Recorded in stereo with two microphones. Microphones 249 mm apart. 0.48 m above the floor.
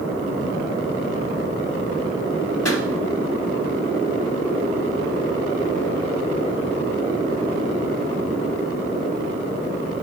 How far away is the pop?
About 1.3 m.